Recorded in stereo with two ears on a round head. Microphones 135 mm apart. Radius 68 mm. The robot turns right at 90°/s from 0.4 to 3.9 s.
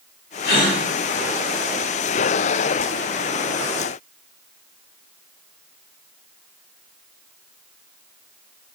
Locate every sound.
0.4 s a gasp: 70° left (ahead or behind), 1.6 m; by 0.8 s 45° left (ahead or behind), 1.6 m